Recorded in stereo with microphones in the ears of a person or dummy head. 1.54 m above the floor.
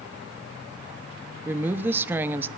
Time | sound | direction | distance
1.4 | a woman speaking | 10° right (ahead or behind) | 0.8 m